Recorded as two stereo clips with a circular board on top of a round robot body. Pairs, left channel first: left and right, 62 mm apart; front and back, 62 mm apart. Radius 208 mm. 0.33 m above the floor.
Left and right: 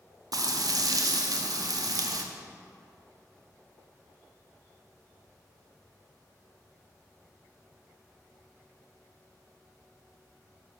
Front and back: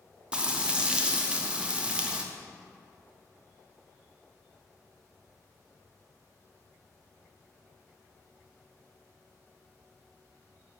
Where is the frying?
105° right, 0.7 m.